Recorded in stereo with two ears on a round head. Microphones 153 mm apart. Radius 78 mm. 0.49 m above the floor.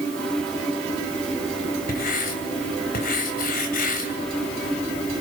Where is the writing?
55° left (ahead or behind), 3 m.